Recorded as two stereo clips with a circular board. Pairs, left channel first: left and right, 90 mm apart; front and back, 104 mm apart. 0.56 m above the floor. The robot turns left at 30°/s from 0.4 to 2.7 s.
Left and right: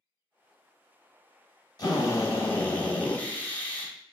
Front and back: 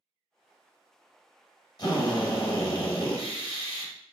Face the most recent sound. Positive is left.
turn(degrees=20)